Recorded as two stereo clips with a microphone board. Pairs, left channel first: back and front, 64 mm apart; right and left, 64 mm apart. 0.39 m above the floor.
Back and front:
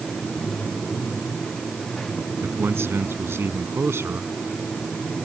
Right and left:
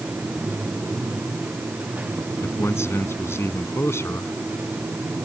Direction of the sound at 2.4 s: 50° right.